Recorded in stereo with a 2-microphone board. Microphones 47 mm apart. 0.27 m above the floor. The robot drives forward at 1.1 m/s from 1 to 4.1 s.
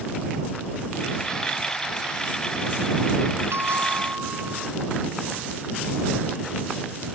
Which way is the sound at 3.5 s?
80° right.